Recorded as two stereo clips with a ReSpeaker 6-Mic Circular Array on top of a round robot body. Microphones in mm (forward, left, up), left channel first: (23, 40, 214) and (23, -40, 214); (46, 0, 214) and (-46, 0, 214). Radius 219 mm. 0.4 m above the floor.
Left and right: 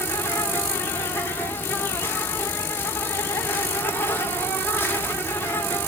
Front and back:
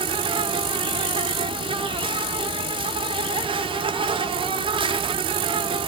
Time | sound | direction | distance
0.0 | an insect | 155° left | 0.7 m